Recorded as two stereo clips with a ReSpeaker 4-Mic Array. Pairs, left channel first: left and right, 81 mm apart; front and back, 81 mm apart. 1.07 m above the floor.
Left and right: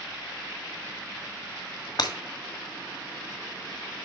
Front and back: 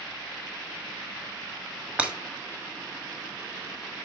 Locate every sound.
2.0 s breaking glass: 110° left, 1.6 m